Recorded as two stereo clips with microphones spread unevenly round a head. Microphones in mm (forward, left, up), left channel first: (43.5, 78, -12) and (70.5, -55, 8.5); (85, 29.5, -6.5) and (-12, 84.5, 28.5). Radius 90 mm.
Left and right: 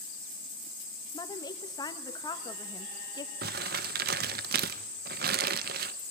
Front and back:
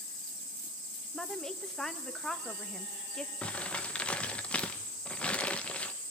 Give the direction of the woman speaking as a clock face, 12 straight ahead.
10 o'clock.